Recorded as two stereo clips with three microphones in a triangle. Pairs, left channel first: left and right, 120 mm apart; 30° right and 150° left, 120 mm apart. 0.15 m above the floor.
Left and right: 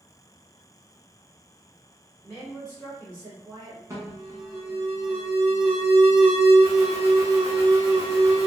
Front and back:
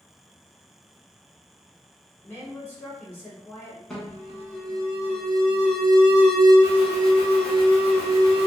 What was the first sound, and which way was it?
A woman speaking, 25° left.